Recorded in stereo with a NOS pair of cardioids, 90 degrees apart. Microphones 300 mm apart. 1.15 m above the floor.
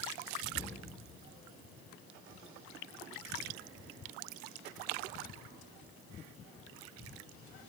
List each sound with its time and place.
0.6 s a cupboard door: 40° left, 2.5 m